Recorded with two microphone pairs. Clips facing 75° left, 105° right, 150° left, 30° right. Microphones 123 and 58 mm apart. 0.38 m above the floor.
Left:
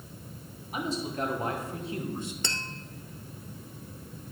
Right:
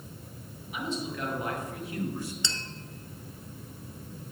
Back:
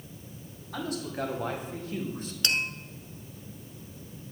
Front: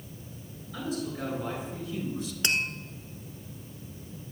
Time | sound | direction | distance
0.7 | a man speaking | 125° left | 3.5 m
2.4 | tapping | 35° left | 0.8 m